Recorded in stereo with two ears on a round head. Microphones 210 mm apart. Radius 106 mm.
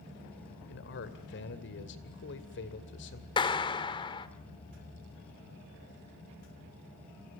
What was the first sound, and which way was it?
A man speaking, 50° left (ahead or behind).